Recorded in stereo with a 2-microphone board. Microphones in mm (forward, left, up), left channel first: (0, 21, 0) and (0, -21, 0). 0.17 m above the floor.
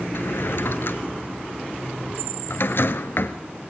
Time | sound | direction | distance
0.1 | a drawer | 60° left (ahead or behind) | 1.0 m